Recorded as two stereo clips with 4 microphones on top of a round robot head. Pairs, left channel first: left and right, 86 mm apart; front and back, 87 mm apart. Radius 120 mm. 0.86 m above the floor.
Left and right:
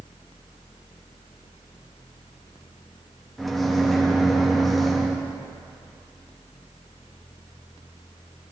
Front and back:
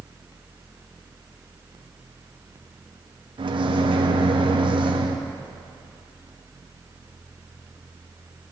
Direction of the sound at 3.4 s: Straight behind.